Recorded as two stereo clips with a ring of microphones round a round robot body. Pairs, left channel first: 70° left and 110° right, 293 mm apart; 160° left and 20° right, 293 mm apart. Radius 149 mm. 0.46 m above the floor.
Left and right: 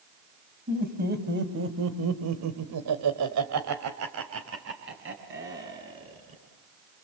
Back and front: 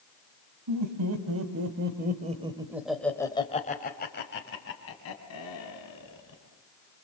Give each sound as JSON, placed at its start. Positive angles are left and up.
{"t": 0.7, "sound": "laughter", "azimuth_deg": -50, "distance_m": 4.0}